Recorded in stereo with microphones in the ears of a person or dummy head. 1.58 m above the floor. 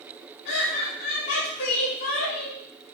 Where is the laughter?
60° left (ahead or behind), 4.5 m.